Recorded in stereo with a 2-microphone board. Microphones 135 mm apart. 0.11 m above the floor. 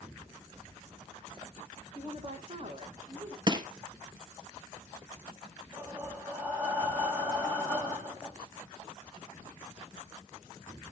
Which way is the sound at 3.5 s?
30° right (ahead or behind).